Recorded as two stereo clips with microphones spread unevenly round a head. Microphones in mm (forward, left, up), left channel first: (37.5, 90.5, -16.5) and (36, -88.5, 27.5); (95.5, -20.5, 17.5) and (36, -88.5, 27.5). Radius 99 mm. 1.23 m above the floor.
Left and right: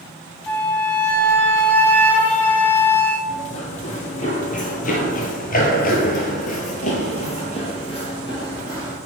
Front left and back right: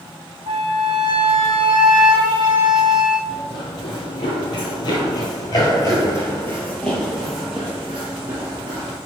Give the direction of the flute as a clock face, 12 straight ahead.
6 o'clock.